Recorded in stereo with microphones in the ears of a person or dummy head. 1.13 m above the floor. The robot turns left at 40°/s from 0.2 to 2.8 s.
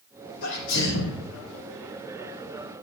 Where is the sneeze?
110° left, 2.5 m; by 1.2 s 75° left, 2.5 m.